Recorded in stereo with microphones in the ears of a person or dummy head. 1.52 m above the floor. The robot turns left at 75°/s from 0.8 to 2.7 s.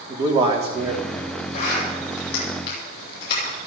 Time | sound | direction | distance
0.1 | a man speaking | 155° right | 3.5 m
1.5 | a zipper | 40° left (ahead or behind) | 8.5 m